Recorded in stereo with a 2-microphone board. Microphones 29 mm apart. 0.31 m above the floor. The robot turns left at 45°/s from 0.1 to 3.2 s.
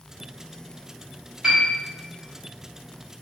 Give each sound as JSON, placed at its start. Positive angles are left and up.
{"t": 1.4, "sound": "a piano", "side_deg": -20, "distance_m": 0.9}